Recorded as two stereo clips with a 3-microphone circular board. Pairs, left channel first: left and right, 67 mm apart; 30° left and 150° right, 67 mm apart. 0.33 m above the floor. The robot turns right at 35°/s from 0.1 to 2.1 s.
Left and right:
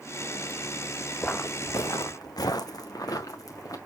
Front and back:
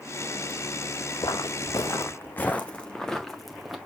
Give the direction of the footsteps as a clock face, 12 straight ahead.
11 o'clock.